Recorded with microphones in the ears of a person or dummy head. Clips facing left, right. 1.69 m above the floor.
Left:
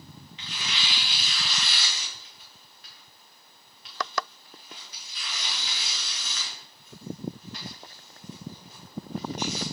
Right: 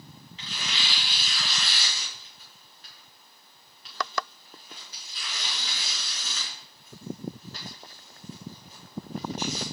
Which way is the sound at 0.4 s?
35° right (ahead or behind).